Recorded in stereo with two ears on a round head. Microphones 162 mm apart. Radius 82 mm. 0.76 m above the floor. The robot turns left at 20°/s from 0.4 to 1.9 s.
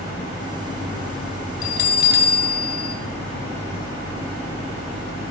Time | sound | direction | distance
1.6 | a bell | 55° left (ahead or behind) | 2.5 m